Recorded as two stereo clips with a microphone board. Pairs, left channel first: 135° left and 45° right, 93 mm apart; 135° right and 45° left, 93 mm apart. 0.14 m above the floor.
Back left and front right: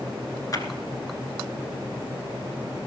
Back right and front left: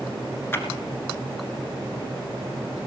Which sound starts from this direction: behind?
A clap, at 0.5 s.